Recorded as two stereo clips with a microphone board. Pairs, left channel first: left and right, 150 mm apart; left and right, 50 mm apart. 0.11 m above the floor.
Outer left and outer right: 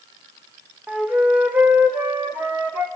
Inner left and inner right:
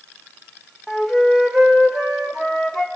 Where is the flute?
10° right (ahead or behind), 1.0 m.